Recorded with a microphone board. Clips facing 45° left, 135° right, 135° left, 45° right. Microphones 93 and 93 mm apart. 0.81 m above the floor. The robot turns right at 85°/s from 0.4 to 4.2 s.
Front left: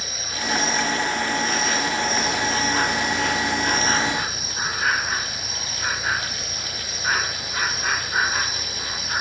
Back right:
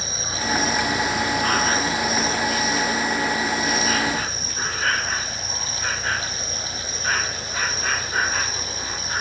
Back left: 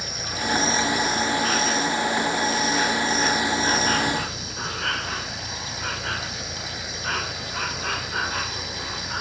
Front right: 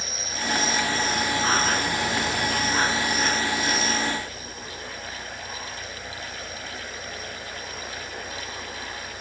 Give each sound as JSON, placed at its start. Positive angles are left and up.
{"t": 0.0, "sound": "an insect", "azimuth_deg": 165}